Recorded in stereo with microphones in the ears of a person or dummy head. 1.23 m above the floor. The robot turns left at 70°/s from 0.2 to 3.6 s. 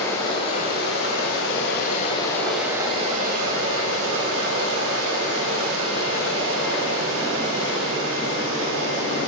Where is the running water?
165° left, 4.5 m; by 9.3 s 75° right, 4.5 m.